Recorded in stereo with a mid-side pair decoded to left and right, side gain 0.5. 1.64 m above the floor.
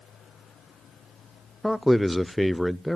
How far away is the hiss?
No hiss in this recording.